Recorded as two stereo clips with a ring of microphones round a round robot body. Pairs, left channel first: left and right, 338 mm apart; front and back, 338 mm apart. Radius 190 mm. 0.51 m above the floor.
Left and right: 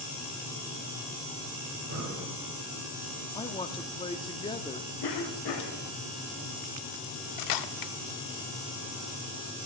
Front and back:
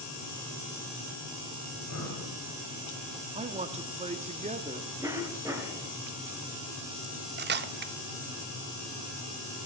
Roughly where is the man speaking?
Behind left.